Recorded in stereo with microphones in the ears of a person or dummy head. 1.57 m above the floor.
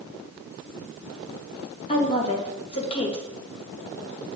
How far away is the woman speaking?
About 2 m.